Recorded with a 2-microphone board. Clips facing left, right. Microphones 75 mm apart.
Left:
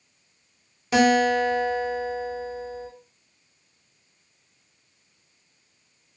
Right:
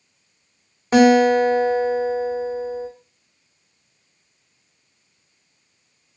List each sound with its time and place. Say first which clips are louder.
0.9 s a guitar: right 6 dB; 35° right (ahead or behind), 0.7 m